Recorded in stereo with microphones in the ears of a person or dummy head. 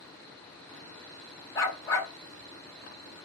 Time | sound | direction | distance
1.6 | a dog barking | 15° left (ahead or behind) | 1.2 m